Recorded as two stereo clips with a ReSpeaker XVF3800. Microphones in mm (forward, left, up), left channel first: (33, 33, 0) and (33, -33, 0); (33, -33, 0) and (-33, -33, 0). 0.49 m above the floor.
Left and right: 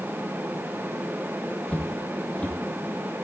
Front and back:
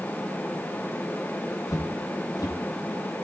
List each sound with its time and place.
1.7 s footsteps: 20° left, 1.4 m